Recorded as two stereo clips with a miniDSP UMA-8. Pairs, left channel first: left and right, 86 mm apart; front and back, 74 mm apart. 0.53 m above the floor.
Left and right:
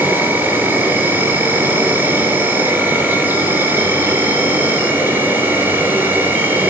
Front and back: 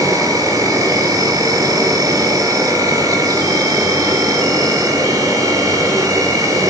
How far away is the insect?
About 4.5 m.